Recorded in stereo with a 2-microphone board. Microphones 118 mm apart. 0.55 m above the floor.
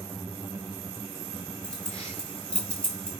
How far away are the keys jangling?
About 3 m.